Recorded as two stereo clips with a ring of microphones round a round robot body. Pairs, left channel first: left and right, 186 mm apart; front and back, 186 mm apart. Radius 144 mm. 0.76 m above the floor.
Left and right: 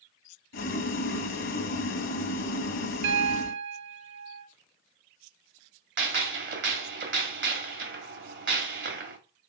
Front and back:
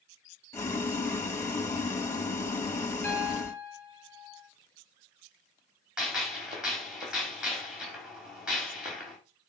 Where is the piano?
80° right, 1.1 m.